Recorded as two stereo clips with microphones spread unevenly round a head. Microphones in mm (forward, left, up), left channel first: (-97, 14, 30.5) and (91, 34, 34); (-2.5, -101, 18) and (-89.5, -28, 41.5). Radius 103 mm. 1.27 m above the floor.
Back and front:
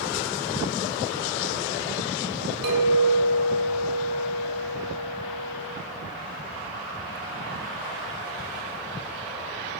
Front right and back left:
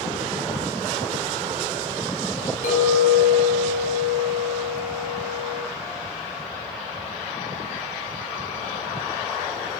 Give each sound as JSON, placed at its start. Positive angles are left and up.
{"t": 2.6, "sound": "a clink", "azimuth_deg": 0, "distance_m": 2.5}